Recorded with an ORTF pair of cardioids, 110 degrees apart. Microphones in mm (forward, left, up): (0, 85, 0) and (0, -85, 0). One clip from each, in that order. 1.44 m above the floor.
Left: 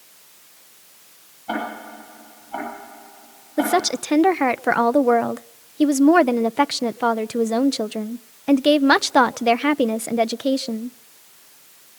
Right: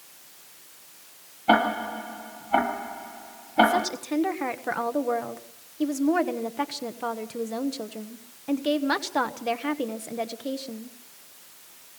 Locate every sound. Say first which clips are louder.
1.5 s ticking: right 7 dB; 55° right, 9.5 m
3.6 s a woman speaking: left 1 dB; 50° left, 0.8 m